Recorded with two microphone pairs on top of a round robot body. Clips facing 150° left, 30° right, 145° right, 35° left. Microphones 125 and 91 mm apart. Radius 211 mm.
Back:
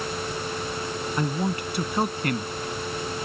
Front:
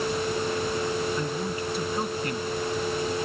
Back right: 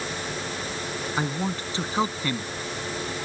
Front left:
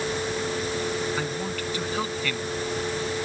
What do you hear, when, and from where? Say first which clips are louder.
1.2 s a man speaking: back 2 dB, back right 1 dB; 155° left